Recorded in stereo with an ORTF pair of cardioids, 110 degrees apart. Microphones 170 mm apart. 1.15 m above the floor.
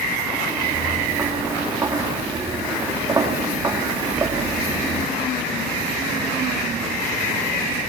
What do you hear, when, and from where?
0.5 s footsteps: 10° right, 7.5 m